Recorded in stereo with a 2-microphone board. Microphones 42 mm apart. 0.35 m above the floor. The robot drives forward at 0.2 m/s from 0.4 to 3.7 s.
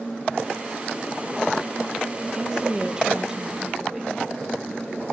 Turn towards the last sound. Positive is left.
turn(degrees=-15)  # may be behind; listen again after turning